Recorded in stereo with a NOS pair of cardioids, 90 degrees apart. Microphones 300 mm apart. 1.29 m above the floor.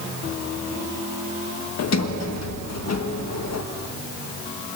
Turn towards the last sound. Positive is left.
turn(degrees=60)